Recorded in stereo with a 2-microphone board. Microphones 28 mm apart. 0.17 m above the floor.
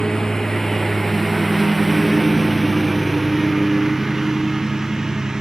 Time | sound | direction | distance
0.0 | a lawn mower | 25° left (ahead or behind) | ?